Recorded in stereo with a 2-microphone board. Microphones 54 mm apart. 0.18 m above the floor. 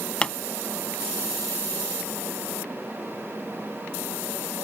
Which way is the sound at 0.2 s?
20° left (ahead or behind).